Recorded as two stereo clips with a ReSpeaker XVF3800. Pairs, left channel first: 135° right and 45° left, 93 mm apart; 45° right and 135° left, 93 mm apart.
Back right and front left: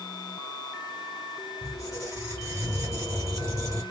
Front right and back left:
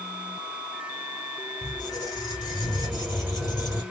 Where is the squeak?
5° right, 2 m.